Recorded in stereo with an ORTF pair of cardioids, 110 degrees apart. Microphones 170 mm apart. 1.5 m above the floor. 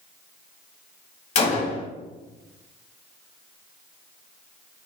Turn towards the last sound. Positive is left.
turn(degrees=40)